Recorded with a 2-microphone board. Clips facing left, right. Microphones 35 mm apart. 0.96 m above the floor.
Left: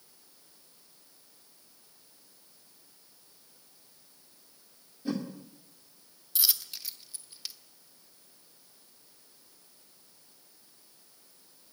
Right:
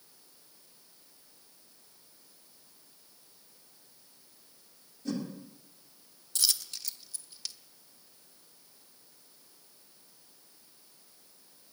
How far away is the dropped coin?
About 1.0 m.